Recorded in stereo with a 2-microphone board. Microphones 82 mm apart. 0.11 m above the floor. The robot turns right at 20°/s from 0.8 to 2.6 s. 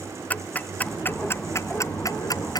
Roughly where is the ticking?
Left.